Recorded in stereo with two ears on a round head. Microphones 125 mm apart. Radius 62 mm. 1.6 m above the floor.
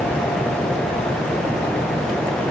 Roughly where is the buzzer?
No buzzer in this recording.